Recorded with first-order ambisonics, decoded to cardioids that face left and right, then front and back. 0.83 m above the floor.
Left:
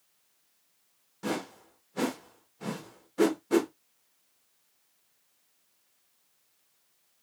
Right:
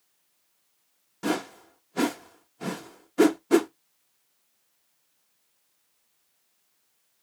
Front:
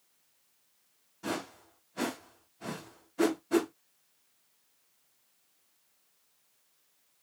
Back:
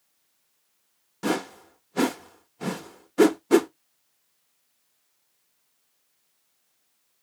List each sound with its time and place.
1.2 s a whoosh: 155° right, 0.7 m